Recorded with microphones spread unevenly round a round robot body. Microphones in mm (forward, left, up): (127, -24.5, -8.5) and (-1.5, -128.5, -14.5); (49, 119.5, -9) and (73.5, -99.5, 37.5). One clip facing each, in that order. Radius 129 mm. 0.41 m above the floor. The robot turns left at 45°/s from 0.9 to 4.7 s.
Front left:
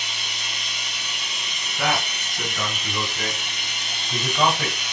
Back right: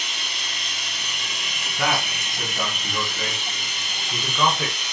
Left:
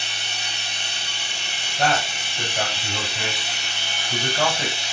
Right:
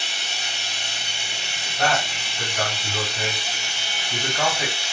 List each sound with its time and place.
0.0 s running water: 155° right, 1.2 m; by 4.9 s 35° left, 1.2 m
1.8 s a man speaking: straight behind, 1.7 m; by 4.8 s 50° left, 1.7 m